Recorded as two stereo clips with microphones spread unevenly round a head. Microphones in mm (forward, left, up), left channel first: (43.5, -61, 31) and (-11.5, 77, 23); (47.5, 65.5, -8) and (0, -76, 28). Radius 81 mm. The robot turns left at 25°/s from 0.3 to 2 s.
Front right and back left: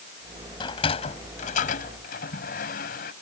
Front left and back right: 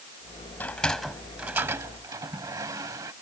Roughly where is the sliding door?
Ahead.